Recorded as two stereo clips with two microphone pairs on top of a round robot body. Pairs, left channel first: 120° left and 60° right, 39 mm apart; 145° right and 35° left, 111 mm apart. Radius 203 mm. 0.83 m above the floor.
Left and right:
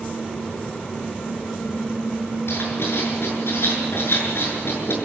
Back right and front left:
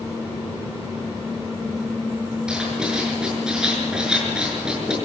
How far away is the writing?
About 6.5 m.